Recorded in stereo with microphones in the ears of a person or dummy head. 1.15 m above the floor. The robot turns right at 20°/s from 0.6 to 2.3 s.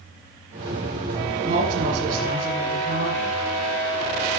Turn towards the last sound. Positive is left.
turn(degrees=-35)  # may be behind; listen again after turning